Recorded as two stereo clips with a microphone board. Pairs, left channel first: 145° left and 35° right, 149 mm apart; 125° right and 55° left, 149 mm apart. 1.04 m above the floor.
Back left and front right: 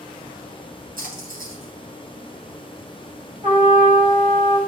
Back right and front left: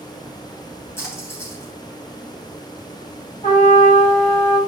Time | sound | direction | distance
1.0 | a splash | 50° right | 3 m
3.4 | a trumpet | 75° right | 4 m